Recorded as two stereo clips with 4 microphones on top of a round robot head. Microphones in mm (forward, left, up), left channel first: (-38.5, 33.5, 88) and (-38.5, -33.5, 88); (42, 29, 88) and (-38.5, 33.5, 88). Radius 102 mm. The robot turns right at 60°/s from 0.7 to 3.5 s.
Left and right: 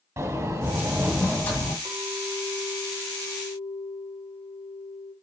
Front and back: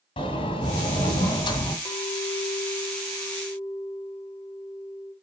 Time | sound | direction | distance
0.2 | a sliding door | 25° right | 1.7 m
1.9 | a clink | 45° right | 2.5 m